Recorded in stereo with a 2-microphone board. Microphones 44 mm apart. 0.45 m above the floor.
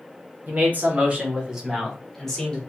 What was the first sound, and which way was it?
A man speaking, 45° right (ahead or behind).